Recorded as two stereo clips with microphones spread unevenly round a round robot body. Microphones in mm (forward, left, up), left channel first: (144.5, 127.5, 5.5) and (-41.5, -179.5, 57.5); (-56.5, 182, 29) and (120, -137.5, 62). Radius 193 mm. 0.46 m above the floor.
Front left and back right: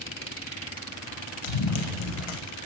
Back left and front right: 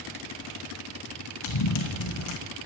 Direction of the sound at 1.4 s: 75° left.